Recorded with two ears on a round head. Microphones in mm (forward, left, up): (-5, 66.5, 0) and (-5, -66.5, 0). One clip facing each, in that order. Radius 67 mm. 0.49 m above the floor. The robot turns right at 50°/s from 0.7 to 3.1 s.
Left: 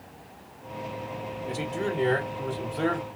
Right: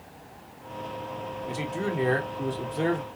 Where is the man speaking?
Centre (ahead or behind), 1.3 m; by 3.1 s 25° right (ahead or behind), 1.3 m.